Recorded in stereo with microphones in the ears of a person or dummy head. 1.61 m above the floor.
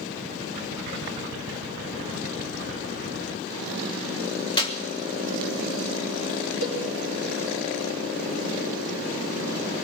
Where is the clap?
30° left (ahead or behind), 1.2 m.